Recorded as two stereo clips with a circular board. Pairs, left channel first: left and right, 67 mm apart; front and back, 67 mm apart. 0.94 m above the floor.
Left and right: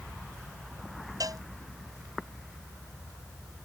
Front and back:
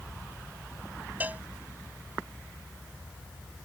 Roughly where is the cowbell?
Behind right.